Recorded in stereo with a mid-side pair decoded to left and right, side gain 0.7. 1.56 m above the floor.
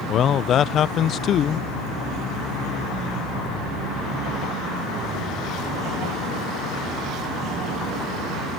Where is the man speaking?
40° left.